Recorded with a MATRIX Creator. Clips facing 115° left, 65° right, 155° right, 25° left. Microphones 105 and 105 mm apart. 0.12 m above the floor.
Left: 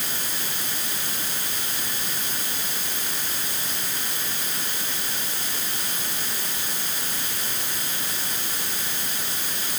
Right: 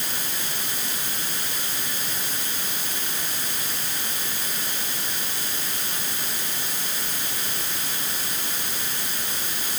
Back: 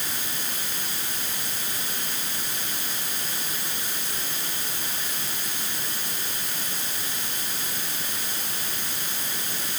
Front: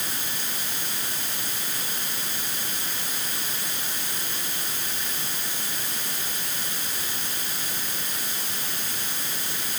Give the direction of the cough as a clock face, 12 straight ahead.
I don't hear a cough.